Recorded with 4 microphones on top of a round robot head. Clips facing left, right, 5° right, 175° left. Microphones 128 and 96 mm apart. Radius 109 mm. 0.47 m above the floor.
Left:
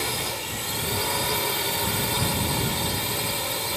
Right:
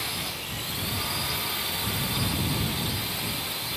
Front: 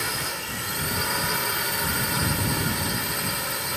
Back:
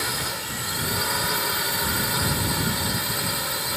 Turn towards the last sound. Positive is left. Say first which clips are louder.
# left 6 dB, back 1 dB
turn(degrees=90)